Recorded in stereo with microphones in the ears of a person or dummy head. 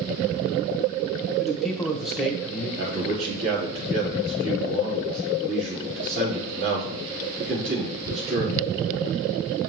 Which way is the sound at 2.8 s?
60° right (ahead or behind).